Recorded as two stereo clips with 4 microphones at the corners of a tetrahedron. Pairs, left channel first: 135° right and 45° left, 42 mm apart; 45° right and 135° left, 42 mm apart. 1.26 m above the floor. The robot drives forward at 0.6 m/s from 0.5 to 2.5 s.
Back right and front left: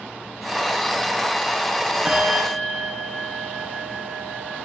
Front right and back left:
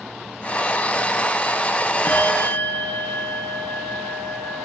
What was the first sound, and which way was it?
A bell, 20° right.